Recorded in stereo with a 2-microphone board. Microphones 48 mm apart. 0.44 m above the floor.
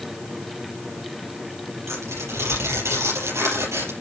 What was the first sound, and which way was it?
Tearing paper, 80° right.